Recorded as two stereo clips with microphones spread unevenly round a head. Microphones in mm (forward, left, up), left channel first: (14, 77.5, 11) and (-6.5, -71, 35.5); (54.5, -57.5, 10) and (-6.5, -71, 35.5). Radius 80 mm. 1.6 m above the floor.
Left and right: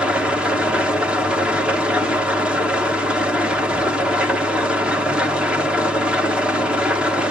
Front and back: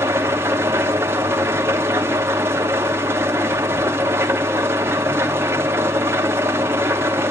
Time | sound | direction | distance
0.0 | an engine running | 175° right | 0.9 m